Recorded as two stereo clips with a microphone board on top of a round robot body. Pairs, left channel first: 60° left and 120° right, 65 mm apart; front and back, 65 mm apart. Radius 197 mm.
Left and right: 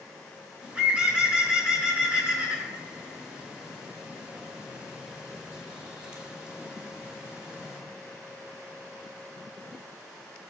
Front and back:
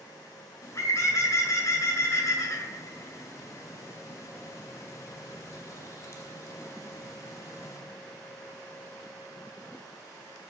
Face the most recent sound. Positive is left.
turn(degrees=-45)